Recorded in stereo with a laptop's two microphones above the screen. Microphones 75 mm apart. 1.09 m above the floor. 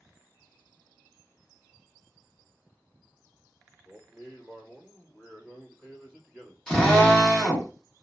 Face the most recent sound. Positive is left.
turn(degrees=10)  # may be behind; listen again after turning